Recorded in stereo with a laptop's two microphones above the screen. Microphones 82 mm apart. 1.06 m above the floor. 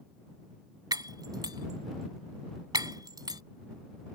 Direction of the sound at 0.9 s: 55° right (ahead or behind).